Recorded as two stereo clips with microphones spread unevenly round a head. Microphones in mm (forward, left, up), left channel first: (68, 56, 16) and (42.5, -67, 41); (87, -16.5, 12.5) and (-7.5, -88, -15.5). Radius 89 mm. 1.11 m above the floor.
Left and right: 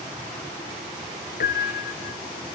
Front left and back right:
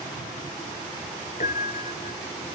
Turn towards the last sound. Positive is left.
turn(degrees=80)